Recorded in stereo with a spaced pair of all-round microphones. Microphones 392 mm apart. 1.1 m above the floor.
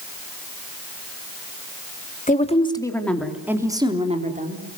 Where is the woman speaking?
20° left (ahead or behind), 3 m; by 4.6 s 25° right (ahead or behind), 3.5 m.